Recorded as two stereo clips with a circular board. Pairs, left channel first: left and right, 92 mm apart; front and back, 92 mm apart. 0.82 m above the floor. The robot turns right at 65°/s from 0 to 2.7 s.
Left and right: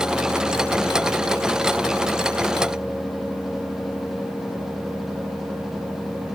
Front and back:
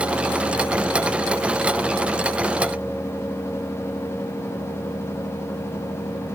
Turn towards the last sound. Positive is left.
No sound to turn to.